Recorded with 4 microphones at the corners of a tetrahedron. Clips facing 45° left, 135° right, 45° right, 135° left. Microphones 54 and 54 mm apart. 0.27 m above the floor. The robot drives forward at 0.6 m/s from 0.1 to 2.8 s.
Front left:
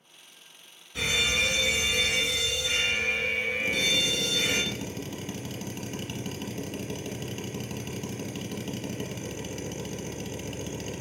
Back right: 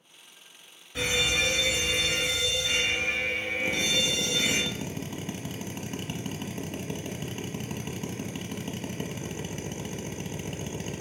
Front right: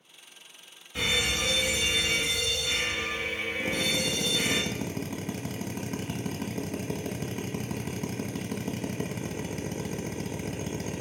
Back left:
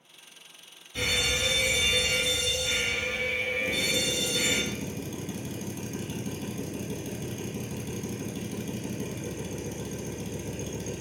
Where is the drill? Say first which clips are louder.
Back right 2 dB, even; 70° right, 0.7 m.